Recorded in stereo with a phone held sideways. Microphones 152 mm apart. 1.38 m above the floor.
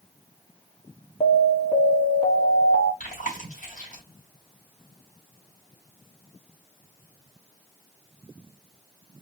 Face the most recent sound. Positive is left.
turn(degrees=55)  # may be behind; listen again after turning